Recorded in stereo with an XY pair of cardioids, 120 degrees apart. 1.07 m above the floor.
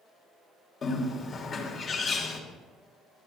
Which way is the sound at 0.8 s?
40° left.